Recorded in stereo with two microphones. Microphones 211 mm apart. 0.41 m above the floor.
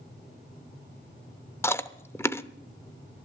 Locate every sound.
1.6 s chewing: 10° left (ahead or behind), 0.6 m